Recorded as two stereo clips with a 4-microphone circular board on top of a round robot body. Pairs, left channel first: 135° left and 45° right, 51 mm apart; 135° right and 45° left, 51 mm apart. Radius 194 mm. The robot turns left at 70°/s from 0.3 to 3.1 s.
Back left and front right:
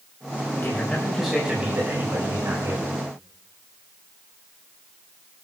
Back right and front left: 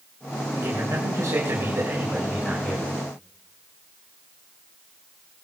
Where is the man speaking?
90° left, 4.5 m; by 2.9 s 70° right, 4.5 m.